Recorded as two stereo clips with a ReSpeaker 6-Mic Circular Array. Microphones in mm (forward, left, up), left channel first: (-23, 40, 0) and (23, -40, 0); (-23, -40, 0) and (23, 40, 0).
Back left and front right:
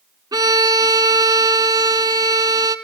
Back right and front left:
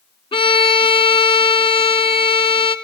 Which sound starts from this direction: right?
A violin, at 0.3 s.